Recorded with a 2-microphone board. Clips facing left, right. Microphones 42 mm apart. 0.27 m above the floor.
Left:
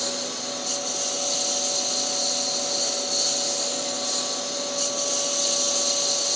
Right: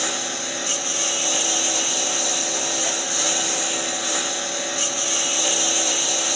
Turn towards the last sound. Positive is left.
turn(degrees=-50)  # may be behind; listen again after turning